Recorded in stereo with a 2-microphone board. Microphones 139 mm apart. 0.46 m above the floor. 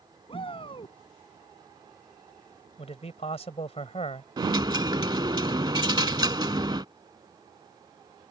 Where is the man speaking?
45° left (ahead or behind).